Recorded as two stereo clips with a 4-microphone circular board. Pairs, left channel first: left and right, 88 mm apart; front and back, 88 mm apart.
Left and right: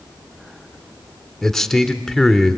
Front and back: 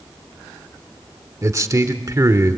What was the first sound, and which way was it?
A man speaking, 175° left.